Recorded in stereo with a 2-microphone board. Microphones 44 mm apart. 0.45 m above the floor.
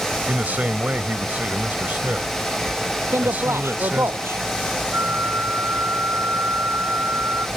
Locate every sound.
0.3 s a man speaking: 40° right (ahead or behind)
3.1 s a man speaking: 70° right (ahead or behind)
4.9 s a flute: 50° right (ahead or behind)